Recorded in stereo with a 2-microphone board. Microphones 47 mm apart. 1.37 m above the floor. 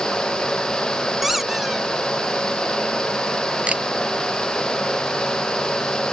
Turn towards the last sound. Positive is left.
turn(degrees=-25)  # may be behind; listen again after turning